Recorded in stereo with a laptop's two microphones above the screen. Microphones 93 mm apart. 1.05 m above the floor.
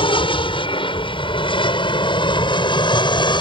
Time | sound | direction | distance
0.0 | an aircraft | 70° left (ahead or behind) | ?